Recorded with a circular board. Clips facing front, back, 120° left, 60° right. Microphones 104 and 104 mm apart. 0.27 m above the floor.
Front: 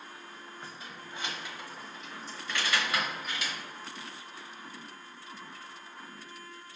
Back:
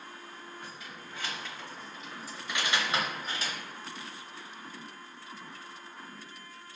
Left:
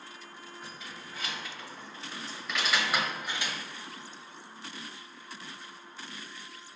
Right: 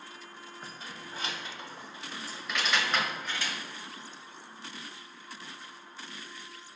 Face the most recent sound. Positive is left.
turn(degrees=175)